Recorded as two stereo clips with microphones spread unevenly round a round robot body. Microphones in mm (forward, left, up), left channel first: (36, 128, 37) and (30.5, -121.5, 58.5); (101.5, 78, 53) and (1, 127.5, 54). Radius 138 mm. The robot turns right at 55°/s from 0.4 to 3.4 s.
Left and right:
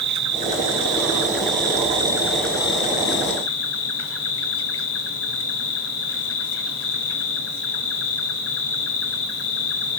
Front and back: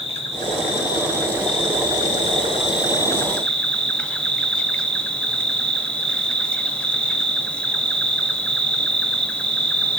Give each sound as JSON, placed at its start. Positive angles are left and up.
{"t": 0.0, "sound": "an insect", "azimuth_deg": -110, "distance_m": 1.4}